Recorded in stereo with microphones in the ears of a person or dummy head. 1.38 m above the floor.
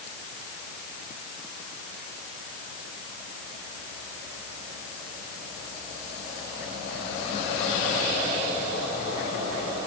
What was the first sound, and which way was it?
Only background noise.